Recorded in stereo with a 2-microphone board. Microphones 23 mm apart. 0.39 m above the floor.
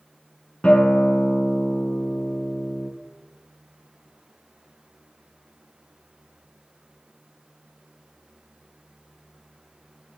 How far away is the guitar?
About 1.8 m.